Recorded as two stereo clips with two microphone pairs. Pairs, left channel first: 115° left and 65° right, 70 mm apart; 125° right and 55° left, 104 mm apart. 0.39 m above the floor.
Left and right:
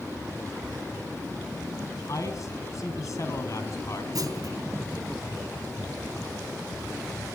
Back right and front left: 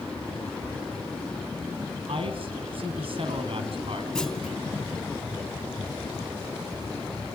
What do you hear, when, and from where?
2.1 s a man speaking: 80° left, 3 m
4.2 s a clunk: 40° right, 3 m